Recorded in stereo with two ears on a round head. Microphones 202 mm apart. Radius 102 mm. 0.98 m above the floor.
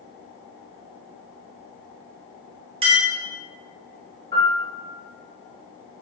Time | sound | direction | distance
2.8 | a clink | 25° right (ahead or behind) | 0.9 m
4.3 | a piano | 20° left (ahead or behind) | 1.7 m